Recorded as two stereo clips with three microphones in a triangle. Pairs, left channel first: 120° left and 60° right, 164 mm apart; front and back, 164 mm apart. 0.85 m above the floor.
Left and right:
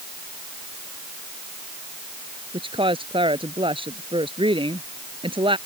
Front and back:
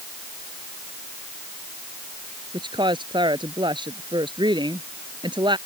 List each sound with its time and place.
2.5 s a woman speaking: 120° right